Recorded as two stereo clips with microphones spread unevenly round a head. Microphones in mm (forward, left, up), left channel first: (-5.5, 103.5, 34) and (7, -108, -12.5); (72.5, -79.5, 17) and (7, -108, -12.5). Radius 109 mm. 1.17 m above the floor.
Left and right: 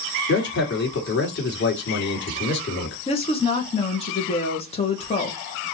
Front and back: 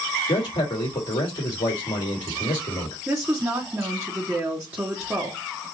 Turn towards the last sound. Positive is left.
turn(degrees=160)